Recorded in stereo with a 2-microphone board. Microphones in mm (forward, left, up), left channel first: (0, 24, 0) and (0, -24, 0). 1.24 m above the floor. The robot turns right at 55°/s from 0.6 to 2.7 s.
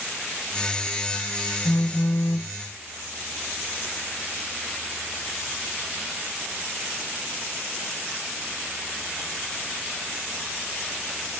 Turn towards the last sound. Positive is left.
turn(degrees=135)